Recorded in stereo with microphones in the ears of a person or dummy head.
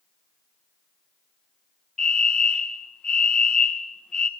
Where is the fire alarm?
5° left (ahead or behind), 1.8 m.